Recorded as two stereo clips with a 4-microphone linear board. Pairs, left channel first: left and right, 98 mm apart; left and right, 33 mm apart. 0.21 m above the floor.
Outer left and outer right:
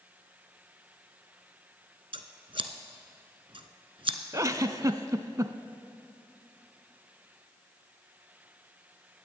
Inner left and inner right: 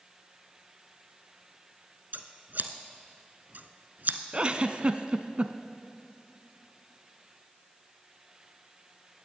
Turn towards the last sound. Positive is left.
turn(degrees=-35)  # may be behind; listen again after turning